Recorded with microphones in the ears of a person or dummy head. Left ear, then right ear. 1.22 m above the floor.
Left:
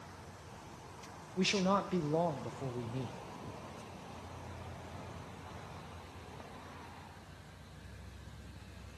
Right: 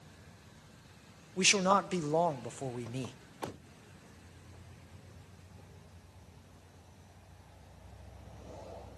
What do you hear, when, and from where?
1.4 s a man speaking: 40° right (ahead or behind), 0.7 m